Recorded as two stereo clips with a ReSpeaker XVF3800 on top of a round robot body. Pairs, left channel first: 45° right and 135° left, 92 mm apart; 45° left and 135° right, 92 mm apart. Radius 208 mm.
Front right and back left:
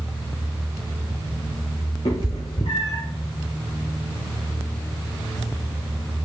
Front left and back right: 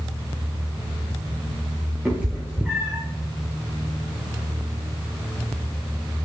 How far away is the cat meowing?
About 0.5 m.